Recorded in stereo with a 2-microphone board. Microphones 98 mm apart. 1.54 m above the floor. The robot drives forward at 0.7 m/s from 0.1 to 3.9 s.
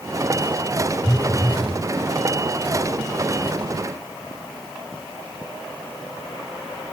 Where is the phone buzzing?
10° left (ahead or behind), 0.5 m; by 1.8 s 5° left (ahead or behind), 1.0 m.